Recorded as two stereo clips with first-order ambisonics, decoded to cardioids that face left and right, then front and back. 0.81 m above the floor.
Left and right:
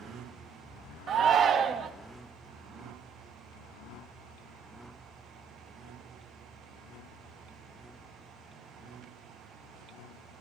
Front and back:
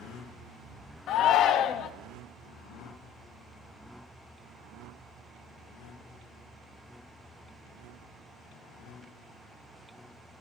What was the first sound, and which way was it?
A shout, 35° right.